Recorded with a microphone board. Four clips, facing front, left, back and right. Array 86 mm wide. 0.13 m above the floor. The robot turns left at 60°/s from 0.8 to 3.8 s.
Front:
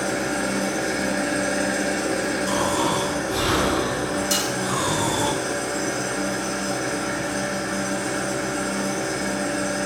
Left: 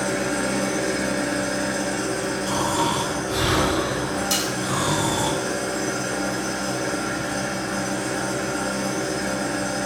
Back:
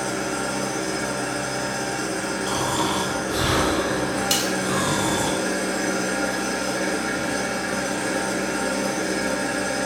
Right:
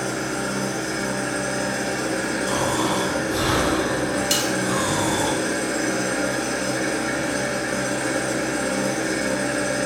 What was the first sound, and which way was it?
An engine running, 55° left.